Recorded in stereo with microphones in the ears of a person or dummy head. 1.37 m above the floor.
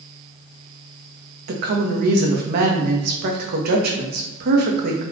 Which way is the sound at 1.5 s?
50° right (ahead or behind).